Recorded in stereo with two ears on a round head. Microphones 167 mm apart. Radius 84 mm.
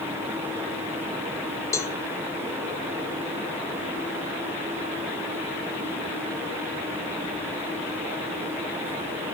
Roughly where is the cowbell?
Centre.